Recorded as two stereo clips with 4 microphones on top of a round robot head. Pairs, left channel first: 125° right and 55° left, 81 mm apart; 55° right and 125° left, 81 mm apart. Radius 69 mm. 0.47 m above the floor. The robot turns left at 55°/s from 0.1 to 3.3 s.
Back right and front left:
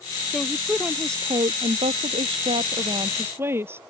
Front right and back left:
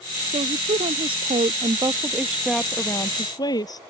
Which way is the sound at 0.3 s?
155° left.